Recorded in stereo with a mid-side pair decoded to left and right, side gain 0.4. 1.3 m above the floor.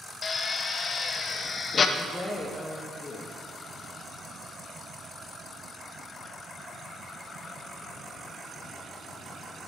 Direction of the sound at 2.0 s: 20° left.